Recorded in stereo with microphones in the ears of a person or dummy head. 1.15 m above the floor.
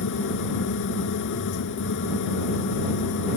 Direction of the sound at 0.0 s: 70° left (ahead or behind).